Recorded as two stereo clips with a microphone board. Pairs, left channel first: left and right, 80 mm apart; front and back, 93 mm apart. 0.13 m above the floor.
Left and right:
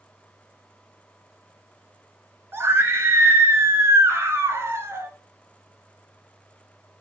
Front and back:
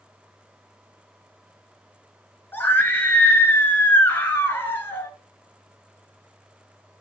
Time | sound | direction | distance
2.5 | a scream | 55° right | 1.8 m